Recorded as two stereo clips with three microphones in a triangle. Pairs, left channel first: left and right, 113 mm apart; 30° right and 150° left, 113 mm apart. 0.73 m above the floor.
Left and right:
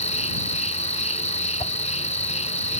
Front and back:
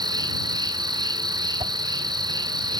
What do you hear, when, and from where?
0.0 s an insect: 100° left
1.6 s a whoosh: 125° left